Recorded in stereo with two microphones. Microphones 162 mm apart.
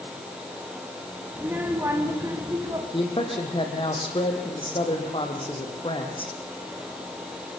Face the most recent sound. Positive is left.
turn(degrees=35)  # may be behind; listen again after turning